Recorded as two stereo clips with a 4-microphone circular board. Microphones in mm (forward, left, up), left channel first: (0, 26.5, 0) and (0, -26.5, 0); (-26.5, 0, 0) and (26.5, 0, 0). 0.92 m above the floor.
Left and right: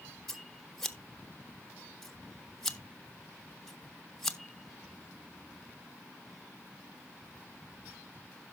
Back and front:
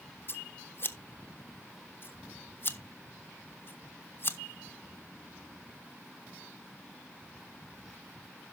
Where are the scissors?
170° left, 0.8 m.